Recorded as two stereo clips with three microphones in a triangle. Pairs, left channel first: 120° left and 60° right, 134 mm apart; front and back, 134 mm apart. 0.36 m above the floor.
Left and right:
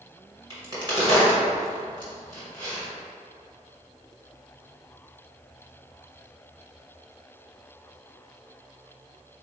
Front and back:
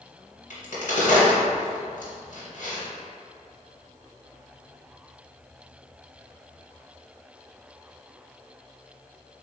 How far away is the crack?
About 1.8 m.